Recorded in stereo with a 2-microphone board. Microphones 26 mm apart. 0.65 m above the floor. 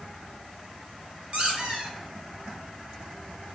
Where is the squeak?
45° right (ahead or behind), 1.8 m.